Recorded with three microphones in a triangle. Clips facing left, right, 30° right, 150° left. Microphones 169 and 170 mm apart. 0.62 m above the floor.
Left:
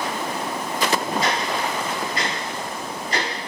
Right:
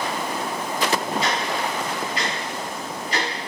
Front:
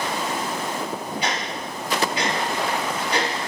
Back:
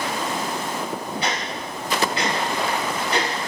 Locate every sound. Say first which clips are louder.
1.2 s ticking: left 1 dB, even; 45° left, 1.7 m